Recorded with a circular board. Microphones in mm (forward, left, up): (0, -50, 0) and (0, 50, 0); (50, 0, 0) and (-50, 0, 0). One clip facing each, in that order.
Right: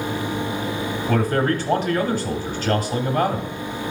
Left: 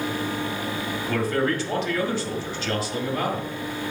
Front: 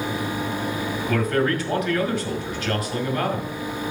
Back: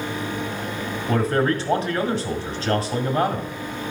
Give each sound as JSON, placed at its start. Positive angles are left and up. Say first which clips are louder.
{"t": 1.1, "sound": "a man speaking", "louder": "right 3 dB, back 2 dB", "azimuth_deg": -125, "distance_m": 1.7}